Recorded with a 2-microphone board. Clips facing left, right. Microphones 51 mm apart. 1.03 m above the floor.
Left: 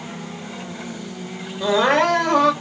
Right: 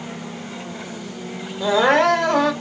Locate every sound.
1.6 s crying: centre (ahead or behind), 1.3 m